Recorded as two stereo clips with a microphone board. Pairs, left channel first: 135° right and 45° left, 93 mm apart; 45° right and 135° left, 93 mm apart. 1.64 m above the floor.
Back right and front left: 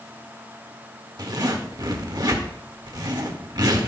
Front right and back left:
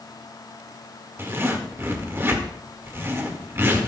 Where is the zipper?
75° left, 1.7 m.